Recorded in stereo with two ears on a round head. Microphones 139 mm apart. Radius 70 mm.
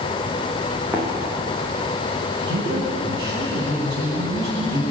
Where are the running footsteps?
10° right (ahead or behind), 7 m.